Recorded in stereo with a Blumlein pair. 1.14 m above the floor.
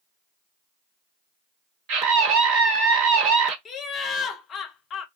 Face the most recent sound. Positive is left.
turn(degrees=25)